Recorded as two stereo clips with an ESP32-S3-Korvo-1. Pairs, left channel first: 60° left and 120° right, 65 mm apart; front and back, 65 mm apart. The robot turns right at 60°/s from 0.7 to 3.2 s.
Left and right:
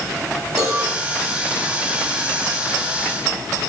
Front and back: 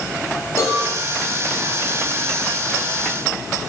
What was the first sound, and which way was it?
A cowbell, 40° right.